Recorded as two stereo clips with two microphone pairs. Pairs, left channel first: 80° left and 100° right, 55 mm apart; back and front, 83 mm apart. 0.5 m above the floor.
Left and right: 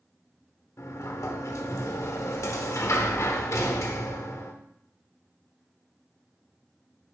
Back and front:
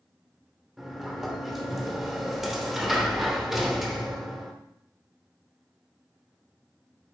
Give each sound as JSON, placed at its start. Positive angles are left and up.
{"t": 0.8, "sound": "a sliding door", "azimuth_deg": 80, "distance_m": 1.0}